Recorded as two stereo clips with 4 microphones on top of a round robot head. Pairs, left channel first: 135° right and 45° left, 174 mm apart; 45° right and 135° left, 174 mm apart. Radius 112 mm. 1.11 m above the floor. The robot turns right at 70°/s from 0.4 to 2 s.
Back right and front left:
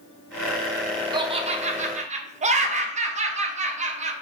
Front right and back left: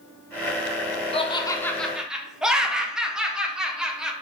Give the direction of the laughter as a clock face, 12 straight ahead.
12 o'clock.